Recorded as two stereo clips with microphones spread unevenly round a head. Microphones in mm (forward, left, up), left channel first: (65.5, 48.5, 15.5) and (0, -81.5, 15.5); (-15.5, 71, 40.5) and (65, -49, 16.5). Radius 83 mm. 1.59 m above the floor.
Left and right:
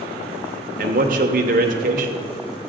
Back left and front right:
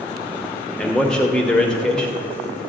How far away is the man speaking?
About 0.9 m.